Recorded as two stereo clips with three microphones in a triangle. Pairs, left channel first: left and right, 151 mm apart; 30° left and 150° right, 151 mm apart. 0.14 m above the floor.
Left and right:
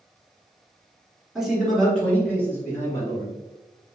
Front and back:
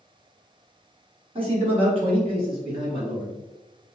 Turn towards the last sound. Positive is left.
turn(degrees=155)